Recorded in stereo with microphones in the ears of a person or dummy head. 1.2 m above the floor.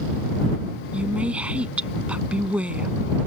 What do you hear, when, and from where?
0.9 s a woman speaking: 5° right (ahead or behind)